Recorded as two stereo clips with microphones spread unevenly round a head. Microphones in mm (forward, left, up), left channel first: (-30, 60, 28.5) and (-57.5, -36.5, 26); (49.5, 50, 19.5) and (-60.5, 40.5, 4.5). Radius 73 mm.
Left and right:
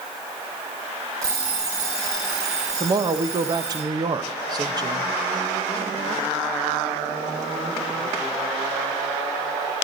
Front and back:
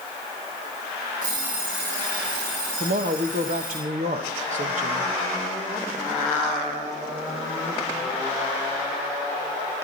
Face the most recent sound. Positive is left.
turn(degrees=-155)